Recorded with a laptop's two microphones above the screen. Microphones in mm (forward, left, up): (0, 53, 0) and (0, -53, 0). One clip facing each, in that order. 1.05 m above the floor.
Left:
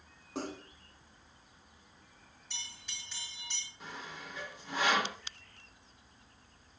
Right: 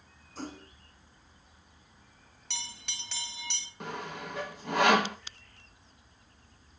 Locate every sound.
0.3 s a splash: 70° left (ahead or behind), 5 m
2.5 s a bell: 75° right (ahead or behind), 1.4 m
3.8 s sawing: 65° right (ahead or behind), 0.9 m